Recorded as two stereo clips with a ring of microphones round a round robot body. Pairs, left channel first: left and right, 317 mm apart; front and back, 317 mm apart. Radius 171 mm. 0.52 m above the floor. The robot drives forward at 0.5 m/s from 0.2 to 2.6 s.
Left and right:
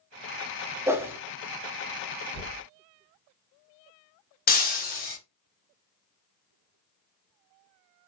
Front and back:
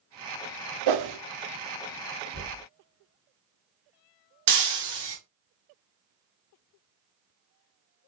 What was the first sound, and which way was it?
A whoosh, 170° right.